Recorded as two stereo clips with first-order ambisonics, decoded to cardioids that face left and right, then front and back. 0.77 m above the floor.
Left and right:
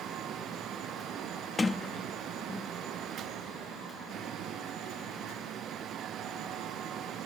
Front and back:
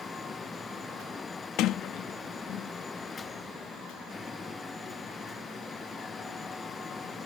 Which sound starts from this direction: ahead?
A sliding door, at 1.6 s.